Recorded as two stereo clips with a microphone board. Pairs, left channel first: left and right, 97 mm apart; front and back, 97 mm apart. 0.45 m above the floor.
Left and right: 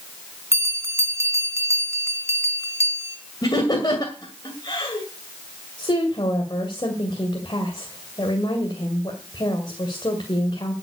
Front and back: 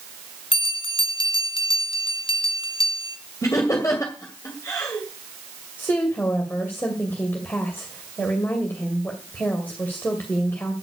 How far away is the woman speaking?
About 2 m.